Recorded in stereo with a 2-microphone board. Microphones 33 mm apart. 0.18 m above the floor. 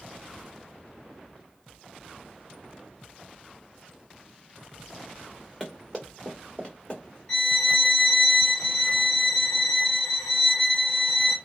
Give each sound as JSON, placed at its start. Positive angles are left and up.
{"t": 5.6, "sound": "running footsteps", "side_deg": 0, "distance_m": 1.5}
{"t": 7.3, "sound": "a violin", "side_deg": 15, "distance_m": 0.6}